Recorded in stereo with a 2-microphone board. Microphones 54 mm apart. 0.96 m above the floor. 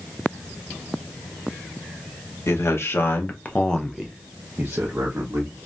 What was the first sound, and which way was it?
A man speaking, 60° left (ahead or behind).